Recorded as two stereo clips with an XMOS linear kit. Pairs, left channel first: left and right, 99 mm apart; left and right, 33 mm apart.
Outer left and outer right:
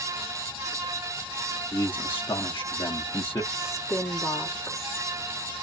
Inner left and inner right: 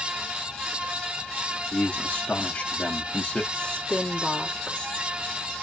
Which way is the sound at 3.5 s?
30° left (ahead or behind).